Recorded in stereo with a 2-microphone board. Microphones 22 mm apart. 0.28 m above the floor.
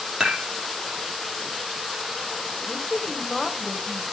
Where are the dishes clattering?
35° right (ahead or behind), 4.5 m.